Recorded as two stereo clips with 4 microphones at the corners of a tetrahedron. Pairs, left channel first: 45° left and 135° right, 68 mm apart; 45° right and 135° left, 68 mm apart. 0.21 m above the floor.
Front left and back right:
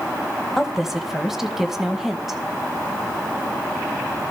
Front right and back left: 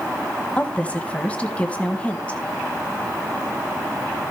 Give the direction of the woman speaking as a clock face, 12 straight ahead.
2 o'clock.